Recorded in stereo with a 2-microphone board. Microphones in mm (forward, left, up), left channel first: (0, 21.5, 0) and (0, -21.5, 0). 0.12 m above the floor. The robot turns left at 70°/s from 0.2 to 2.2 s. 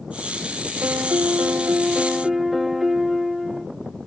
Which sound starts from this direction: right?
A piano, at 0.8 s.